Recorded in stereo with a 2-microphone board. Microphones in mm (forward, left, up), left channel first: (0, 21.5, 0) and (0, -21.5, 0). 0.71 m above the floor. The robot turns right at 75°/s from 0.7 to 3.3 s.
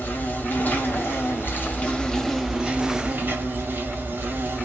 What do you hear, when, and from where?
0.0 s an insect: 55° left, 1.5 m; by 4.7 s 110° right, 1.5 m